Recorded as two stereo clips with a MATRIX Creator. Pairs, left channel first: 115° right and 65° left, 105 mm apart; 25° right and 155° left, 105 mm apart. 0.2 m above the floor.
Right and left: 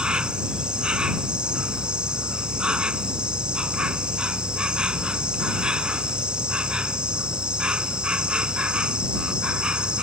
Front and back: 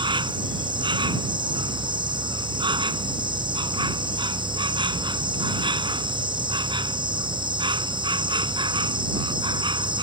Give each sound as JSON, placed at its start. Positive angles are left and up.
{"t": 0.0, "sound": "an insect", "azimuth_deg": 145}